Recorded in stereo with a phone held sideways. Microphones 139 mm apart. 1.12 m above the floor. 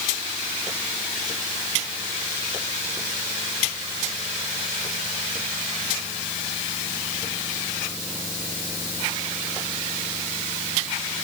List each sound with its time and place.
Only background noise.